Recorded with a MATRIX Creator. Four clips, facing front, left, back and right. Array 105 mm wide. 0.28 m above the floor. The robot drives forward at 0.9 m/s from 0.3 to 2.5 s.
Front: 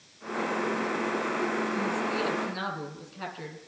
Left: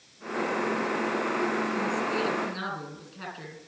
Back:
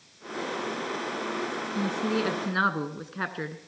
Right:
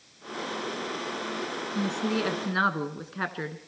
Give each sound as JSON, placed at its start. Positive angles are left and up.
{"t": 1.8, "sound": "a woman speaking", "azimuth_deg": -120, "distance_m": 2.5}